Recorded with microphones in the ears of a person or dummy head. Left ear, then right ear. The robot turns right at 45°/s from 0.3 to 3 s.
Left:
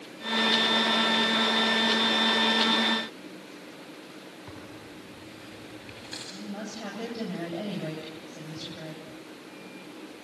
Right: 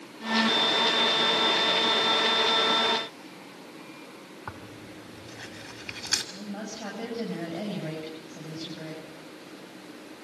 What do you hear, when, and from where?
4.5 s tearing paper: 50° right (ahead or behind), 2 m
6.3 s a woman speaking: 5° left (ahead or behind), 8 m